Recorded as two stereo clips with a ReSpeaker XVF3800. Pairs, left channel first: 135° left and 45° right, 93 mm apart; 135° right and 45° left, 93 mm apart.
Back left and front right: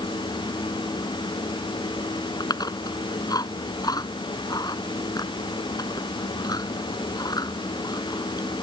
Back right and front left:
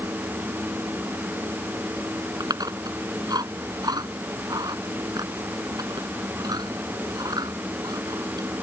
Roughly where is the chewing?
Left.